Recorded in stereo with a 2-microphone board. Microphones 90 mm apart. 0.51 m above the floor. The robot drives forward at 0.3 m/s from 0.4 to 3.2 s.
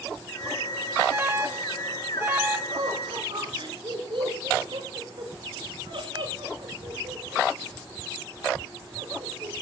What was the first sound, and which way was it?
An alarm, 25° right (ahead or behind).